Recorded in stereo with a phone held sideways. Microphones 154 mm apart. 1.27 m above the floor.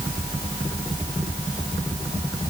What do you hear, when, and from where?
Only background noise.